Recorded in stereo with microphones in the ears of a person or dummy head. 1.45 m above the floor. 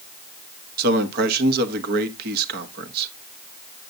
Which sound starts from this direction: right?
A man speaking, at 0.8 s.